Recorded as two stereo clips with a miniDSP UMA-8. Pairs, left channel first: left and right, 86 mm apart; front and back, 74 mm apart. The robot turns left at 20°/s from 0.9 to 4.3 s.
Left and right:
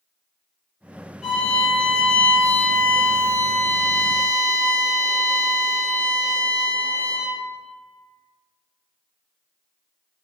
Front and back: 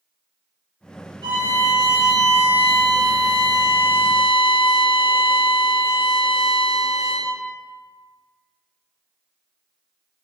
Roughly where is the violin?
Behind.